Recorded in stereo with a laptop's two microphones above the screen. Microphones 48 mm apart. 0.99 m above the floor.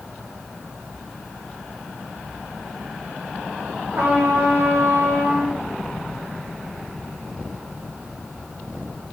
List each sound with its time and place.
4.0 s a trumpet: 50° right (ahead or behind), 0.9 m